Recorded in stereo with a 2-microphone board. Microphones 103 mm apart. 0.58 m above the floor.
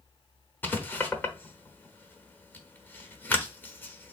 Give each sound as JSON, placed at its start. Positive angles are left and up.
{"t": 0.6, "sound": "writing", "side_deg": 20, "distance_m": 0.9}